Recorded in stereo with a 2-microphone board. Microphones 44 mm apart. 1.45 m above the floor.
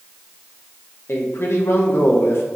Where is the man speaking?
65° left (ahead or behind), 1.9 m.